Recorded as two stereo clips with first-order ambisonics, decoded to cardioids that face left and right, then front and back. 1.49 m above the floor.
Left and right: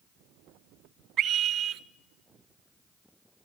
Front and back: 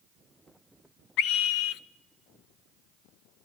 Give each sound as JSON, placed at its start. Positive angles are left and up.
{"t": 1.2, "sound": "a scream", "azimuth_deg": -35, "distance_m": 1.0}